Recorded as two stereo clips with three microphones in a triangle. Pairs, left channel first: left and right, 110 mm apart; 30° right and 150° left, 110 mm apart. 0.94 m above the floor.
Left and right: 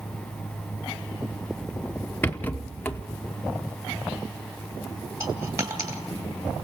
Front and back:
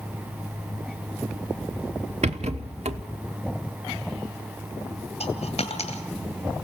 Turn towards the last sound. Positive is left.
turn(degrees=-30)